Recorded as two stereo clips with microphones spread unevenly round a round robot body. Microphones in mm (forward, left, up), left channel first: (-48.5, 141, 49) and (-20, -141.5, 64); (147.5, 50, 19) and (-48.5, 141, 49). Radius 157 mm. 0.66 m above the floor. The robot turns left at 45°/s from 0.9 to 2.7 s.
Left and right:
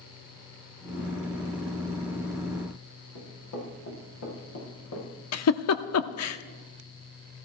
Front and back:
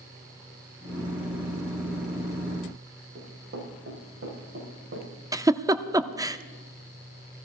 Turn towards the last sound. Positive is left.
turn(degrees=80)